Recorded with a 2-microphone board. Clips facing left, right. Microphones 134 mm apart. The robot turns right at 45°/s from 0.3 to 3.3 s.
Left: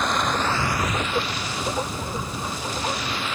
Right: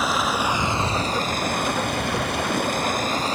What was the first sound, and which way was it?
Running water, 175° right.